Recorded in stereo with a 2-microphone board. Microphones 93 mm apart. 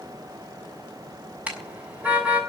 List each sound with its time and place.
1.5 s a car horn: 15° right (ahead or behind), 6.5 m